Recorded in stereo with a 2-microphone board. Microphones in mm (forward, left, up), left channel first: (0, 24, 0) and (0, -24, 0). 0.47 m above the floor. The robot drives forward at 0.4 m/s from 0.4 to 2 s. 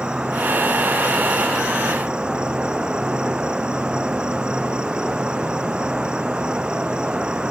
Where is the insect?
20° right (ahead or behind).